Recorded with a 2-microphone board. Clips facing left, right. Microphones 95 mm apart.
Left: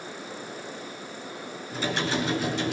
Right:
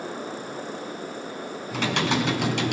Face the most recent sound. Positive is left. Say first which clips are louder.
# right 3 dB
turn(degrees=-75)  # may be behind; listen again after turning